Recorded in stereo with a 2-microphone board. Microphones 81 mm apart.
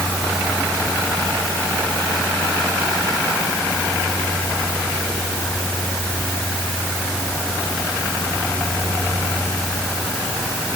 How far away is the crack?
No crack in this recording.